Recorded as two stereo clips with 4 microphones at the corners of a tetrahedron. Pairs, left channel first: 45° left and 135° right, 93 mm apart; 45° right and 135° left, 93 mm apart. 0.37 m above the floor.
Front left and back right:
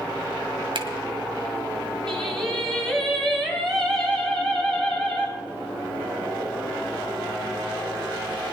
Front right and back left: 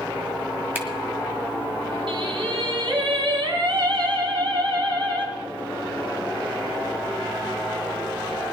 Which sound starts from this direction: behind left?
Singing, at 2.1 s.